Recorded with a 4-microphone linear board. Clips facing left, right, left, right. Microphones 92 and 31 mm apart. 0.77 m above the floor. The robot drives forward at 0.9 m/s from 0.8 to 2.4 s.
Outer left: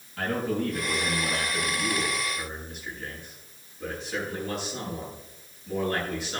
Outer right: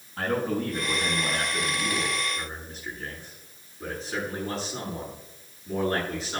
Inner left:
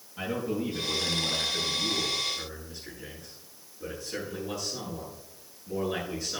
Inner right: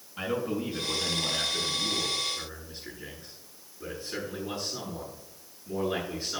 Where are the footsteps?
I don't hear footsteps.